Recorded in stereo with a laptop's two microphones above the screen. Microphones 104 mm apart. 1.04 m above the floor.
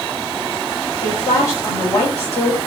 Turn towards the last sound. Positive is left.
turn(degrees=30)  # may be behind; listen again after turning